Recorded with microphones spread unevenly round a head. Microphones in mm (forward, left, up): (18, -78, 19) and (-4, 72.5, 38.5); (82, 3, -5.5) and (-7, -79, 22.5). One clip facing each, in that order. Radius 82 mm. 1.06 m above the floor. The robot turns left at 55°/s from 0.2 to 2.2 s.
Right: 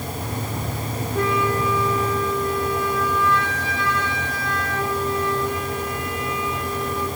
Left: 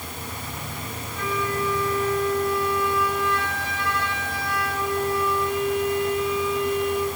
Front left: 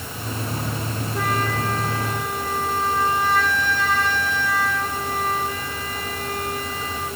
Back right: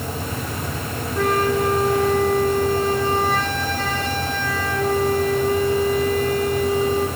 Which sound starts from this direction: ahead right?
A flute, at 1.1 s.